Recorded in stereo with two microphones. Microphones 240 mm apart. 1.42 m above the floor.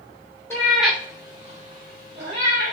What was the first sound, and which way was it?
A cat meowing, 10° left (ahead or behind).